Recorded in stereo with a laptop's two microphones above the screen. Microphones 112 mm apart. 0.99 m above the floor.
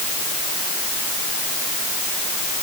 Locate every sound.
Only background noise.